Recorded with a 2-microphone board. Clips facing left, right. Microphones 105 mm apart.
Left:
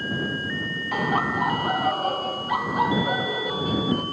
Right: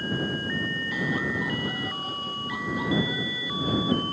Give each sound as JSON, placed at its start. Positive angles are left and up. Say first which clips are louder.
{"t": 0.9, "sound": "laughter", "louder": "left 6 dB", "side_deg": 65}